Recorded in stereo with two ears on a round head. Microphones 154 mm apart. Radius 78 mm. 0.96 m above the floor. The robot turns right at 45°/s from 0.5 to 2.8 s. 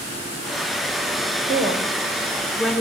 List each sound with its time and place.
1.5 s a woman speaking: 50° right, 3 m; by 2.8 s 10° left, 3 m